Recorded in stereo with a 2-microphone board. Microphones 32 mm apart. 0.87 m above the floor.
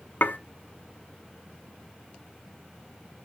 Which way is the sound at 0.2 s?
70° left (ahead or behind).